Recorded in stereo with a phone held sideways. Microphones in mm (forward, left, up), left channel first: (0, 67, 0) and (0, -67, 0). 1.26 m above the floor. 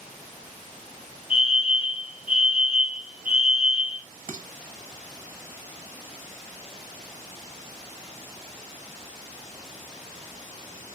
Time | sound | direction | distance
1.3 | a fire alarm | 40° left (ahead or behind) | 2 m
4.3 | dishes clattering | 70° right (ahead or behind) | 1.0 m